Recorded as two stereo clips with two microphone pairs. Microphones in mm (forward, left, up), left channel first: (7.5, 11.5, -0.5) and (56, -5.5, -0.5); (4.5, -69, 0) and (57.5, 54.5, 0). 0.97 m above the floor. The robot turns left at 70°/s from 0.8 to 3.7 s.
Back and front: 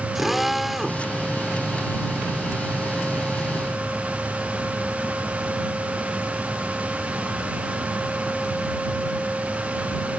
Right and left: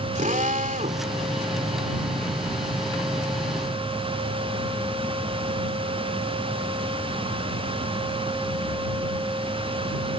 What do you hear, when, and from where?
0.1 s a drill: 65° left; by 1.0 s 50° left